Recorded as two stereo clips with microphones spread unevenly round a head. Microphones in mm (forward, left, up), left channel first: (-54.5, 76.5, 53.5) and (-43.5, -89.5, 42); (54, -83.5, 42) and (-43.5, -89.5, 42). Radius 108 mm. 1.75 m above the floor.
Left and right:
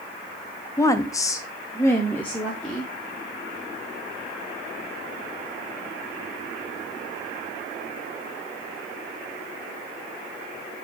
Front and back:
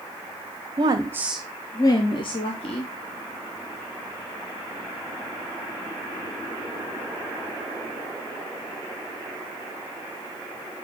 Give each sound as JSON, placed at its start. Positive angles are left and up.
{"t": 0.8, "sound": "a woman speaking", "azimuth_deg": 150, "distance_m": 0.6}